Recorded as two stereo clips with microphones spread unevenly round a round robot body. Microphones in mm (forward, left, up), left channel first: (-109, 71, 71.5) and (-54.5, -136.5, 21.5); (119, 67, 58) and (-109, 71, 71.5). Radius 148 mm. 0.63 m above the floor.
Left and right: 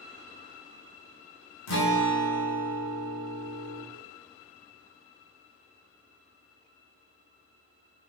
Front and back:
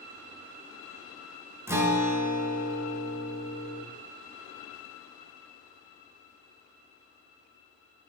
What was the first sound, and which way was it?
A guitar, 100° left.